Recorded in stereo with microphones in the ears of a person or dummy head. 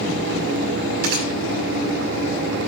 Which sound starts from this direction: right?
A gunshot, at 1.0 s.